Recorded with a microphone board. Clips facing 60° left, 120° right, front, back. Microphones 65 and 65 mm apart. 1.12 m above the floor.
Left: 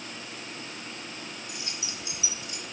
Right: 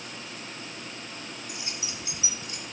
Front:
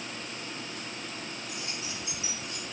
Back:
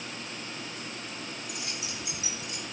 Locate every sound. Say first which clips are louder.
1.5 s keys jangling: right 1 dB, even; straight behind, 4.5 m; by 2.6 s 175° right, 4 m